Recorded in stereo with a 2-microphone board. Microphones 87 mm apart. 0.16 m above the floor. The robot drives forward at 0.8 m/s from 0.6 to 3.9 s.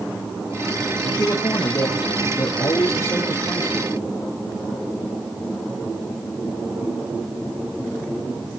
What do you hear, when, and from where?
1.0 s a man speaking: 45° left (ahead or behind), 4.5 m; by 3.9 s 30° left (ahead or behind), 6 m